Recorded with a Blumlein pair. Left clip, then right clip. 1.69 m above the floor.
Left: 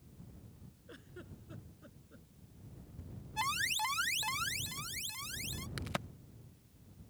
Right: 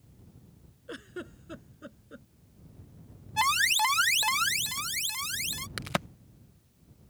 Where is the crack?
25° right.